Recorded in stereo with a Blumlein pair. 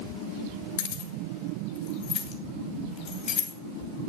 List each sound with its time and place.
0.8 s keys jangling: 50° left, 1.9 m; by 4.1 s 25° left, 3.5 m